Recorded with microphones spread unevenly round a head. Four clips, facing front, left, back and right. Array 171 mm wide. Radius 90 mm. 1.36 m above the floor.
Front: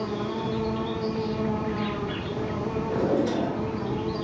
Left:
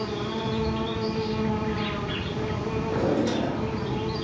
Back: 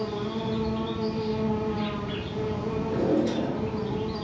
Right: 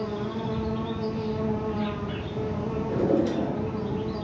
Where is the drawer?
105° right, 1.3 m.